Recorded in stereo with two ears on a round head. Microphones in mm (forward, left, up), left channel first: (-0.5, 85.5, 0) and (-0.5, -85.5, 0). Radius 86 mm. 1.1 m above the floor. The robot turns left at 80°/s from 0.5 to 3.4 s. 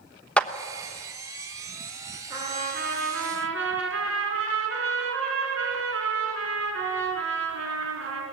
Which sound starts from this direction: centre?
A clap, at 0.4 s.